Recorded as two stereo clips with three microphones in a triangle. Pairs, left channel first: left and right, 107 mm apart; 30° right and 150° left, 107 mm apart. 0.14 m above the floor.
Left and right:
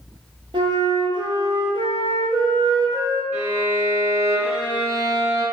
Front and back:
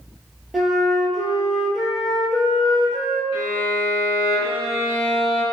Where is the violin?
130° right, 1.6 m.